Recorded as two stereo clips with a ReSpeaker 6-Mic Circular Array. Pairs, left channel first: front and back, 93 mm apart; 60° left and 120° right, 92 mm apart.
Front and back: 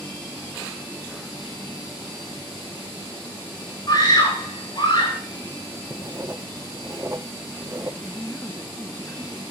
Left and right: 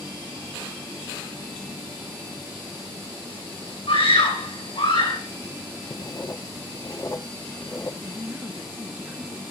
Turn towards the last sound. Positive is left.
turn(degrees=-55)